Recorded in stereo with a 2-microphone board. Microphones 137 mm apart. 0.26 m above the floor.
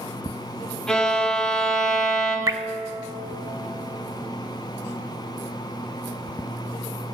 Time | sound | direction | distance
0.9 | a violin | 5° left (ahead or behind) | 2 m
2.5 | dripping | 25° right (ahead or behind) | 0.5 m